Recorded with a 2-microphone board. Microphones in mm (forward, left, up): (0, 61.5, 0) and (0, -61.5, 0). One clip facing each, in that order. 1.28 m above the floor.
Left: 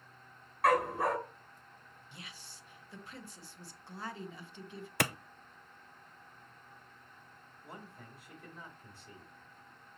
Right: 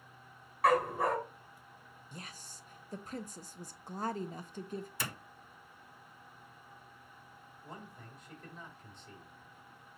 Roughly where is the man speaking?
Centre.